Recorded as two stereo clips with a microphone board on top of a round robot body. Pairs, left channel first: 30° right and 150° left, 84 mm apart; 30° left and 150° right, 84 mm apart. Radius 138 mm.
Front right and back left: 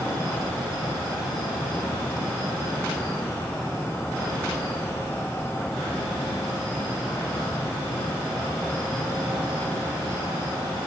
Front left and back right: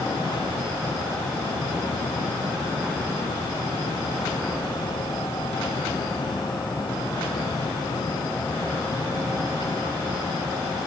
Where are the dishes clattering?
No dishes clattering in this recording.